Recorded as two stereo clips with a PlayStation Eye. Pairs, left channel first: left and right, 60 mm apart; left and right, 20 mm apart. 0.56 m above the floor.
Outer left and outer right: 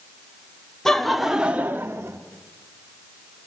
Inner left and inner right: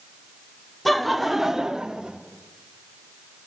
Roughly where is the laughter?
Centre.